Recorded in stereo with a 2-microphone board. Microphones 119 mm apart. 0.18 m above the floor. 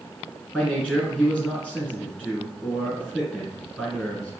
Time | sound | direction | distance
0.5 | a man speaking | 5° right (ahead or behind) | 1.6 m